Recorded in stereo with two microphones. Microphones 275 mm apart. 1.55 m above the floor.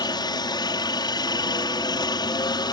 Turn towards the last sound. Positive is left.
turn(degrees=15)  # may be behind; listen again after turning